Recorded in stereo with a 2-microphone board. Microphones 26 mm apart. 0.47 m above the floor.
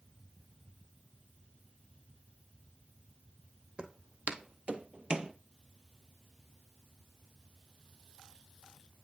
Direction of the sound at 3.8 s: 50° right (ahead or behind).